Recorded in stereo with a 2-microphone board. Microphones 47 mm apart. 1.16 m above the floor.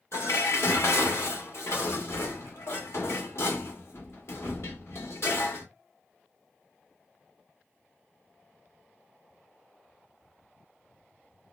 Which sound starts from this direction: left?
Dishes clattering, at 0.1 s.